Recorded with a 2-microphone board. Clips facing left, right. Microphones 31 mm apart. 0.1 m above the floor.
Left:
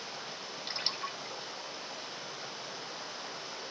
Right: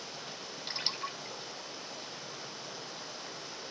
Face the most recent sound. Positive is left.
turn(degrees=15)  # may be behind; listen again after turning